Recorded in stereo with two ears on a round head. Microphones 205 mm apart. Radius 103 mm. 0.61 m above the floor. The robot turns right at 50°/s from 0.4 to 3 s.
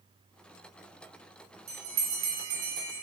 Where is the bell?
65° right (ahead or behind), 4 m; by 3.0 s 50° right (ahead or behind), 4 m.